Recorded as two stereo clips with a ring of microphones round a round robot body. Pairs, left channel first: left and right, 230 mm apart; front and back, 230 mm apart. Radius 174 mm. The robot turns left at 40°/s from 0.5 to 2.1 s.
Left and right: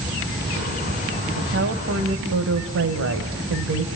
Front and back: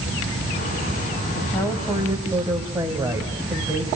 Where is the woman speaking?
70° right, 2.5 m; by 4.0 s 100° right, 2.5 m.